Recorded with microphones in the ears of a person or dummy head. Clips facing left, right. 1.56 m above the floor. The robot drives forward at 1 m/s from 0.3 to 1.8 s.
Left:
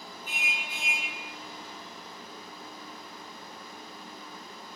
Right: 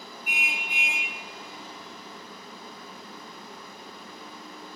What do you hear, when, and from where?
0.3 s a car horn: 15° right (ahead or behind), 6.5 m; by 1.1 s 20° right (ahead or behind), 6 m